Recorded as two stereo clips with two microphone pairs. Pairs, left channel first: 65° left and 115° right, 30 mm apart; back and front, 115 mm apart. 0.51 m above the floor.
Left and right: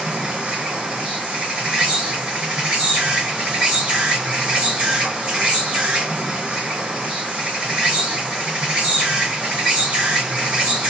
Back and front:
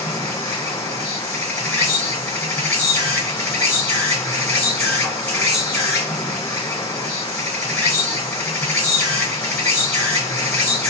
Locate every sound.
0.0 s an insect: 120° right, 2.5 m